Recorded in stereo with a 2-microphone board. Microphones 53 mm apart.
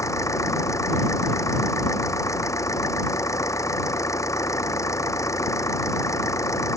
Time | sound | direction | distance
0.0 | an engine running | 80° left | ?